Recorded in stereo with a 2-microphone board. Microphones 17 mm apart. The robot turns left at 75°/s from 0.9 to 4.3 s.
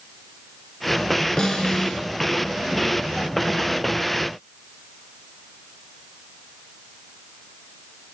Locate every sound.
1.4 s a snare drum: 125° left, 1.3 m; by 2.0 s 75° left, 1.3 m